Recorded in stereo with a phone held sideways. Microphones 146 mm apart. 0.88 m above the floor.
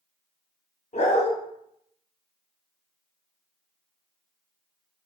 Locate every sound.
0.9 s a dog barking: 50° left (ahead or behind), 0.7 m